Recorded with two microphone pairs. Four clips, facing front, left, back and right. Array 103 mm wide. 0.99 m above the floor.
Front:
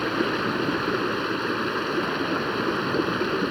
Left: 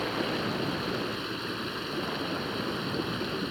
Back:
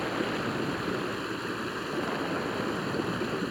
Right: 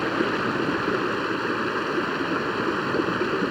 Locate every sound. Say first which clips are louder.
0.0 s running water: right 7 dB, front 6 dB; 55° right